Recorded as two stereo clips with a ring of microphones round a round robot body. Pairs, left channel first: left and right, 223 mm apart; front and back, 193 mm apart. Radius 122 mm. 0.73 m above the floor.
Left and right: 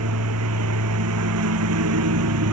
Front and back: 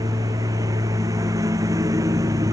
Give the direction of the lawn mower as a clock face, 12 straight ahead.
3 o'clock.